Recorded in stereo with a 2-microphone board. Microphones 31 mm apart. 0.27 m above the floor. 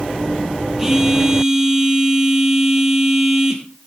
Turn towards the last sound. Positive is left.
turn(degrees=-15)  # may be behind; listen again after turning